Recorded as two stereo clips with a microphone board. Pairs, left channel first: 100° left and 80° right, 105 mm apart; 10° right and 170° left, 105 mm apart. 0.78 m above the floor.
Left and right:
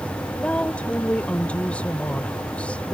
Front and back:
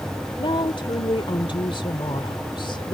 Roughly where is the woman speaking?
Ahead left.